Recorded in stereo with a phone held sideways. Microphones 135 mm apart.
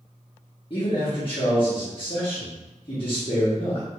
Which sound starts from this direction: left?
A man speaking, at 0.7 s.